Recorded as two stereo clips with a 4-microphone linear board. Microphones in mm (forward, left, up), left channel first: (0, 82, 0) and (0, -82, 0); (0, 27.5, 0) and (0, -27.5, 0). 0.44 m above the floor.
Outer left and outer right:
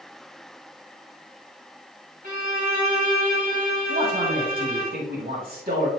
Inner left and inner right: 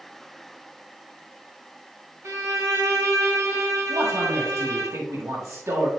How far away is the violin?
About 2.5 m.